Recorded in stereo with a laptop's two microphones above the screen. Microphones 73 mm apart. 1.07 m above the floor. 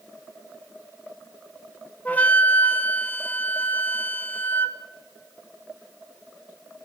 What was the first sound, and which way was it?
A flute, 20° left (ahead or behind).